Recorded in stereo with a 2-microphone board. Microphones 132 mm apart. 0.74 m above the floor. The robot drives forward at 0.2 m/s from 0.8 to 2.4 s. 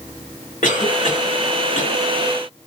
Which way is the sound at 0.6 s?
65° left (ahead or behind).